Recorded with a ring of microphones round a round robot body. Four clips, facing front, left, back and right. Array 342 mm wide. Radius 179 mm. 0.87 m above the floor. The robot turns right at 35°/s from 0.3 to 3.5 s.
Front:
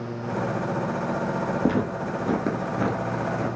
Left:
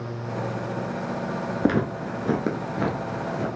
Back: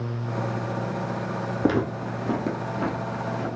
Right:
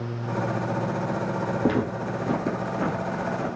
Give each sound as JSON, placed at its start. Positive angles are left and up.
{"t": 1.6, "sound": "footsteps", "azimuth_deg": 115, "distance_m": 0.8}